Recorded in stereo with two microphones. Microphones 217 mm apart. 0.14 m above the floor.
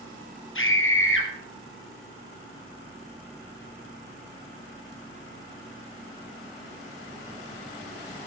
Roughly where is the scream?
Left.